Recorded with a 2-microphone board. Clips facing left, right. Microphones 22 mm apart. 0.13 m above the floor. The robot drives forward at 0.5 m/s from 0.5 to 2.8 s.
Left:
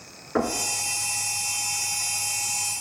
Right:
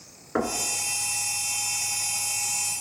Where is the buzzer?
No buzzer in this recording.